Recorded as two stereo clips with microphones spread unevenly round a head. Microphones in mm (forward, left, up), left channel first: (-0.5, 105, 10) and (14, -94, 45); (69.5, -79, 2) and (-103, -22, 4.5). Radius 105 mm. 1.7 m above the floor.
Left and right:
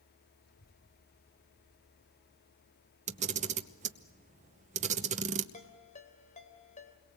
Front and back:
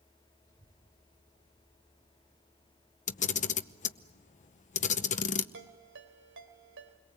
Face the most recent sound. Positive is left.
turn(degrees=155)